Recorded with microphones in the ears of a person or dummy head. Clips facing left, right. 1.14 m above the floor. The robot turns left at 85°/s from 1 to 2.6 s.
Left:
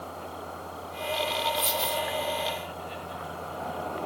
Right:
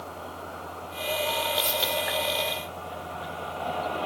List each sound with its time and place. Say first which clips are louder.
1.6 s a dropped coin: right 1 dB; 150° right, 0.6 m; by 2.0 s 170° left, 0.6 m